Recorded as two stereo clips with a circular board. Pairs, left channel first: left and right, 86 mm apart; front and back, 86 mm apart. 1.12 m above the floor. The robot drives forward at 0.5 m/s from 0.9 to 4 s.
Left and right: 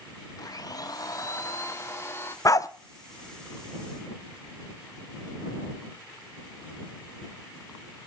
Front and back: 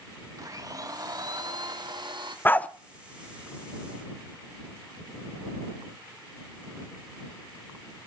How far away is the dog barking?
About 0.8 m.